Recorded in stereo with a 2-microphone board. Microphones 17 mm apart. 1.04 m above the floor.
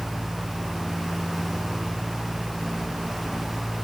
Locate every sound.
Only background noise.